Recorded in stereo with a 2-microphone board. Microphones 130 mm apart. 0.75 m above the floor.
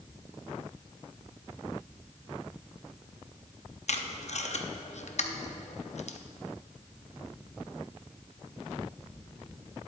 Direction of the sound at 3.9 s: 65° left (ahead or behind).